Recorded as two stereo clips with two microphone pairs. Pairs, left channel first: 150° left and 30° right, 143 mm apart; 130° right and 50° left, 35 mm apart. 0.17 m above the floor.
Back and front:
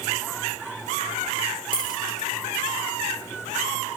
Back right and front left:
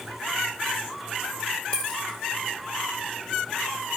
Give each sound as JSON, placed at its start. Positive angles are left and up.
{"t": 1.7, "sound": "a dropped coin", "azimuth_deg": 175, "distance_m": 3.5}